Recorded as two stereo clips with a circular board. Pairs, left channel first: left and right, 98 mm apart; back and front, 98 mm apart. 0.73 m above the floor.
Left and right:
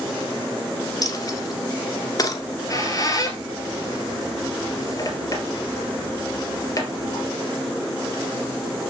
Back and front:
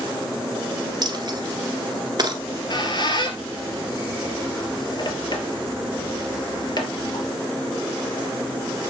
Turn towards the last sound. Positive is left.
turn(degrees=140)